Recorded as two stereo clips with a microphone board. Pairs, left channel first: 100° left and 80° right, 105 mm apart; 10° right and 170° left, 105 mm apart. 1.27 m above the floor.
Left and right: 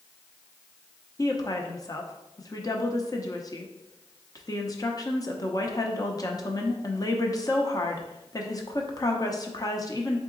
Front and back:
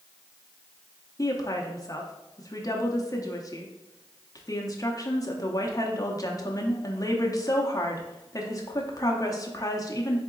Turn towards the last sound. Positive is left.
turn(degrees=45)